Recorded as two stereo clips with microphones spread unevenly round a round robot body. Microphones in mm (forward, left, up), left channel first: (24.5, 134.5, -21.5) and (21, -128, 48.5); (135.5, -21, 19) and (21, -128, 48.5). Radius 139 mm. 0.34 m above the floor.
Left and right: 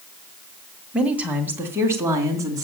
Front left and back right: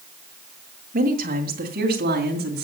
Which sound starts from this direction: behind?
A woman speaking, at 0.9 s.